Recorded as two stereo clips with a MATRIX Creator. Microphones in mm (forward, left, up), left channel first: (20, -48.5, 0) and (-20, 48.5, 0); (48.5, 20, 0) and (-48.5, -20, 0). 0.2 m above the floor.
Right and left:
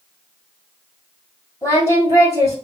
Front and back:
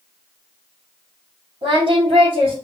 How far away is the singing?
About 2.5 m.